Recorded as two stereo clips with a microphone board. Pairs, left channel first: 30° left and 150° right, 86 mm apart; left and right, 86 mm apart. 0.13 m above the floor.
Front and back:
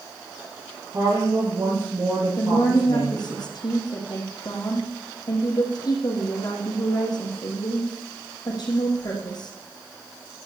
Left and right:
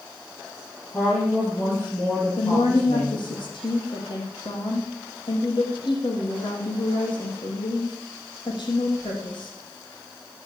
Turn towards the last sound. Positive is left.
turn(degrees=65)